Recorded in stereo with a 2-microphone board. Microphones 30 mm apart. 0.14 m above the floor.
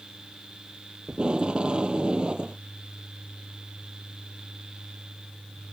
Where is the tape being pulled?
30° right (ahead or behind).